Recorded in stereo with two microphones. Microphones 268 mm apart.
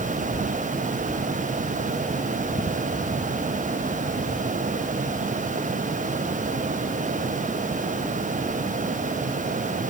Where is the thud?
I don't hear a thud.